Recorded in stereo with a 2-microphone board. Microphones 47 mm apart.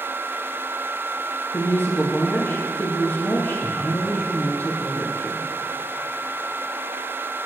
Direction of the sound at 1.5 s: 40° left (ahead or behind).